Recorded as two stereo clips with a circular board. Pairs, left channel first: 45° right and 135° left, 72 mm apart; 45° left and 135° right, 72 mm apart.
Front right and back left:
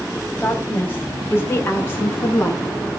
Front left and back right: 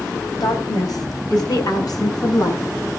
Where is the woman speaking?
15° left, 4.5 m; by 2.6 s 10° left, 6.5 m.